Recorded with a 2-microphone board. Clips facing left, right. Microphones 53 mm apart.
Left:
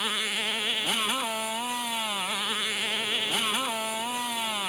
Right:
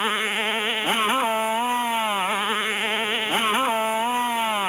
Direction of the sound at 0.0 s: 30° right (ahead or behind).